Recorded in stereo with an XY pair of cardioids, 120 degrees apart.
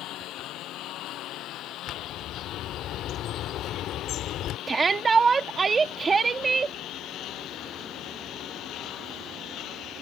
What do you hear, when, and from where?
0.0 s a lawn mower: 70° left; by 10.0 s 65° left
1.9 s a bird: 60° left
4.7 s a shout: 30° right